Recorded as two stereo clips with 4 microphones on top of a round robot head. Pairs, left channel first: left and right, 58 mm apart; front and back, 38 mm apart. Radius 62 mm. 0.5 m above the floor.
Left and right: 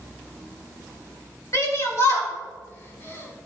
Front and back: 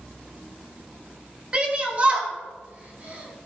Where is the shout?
120° left, 3 m; by 3.5 s 135° left, 5 m.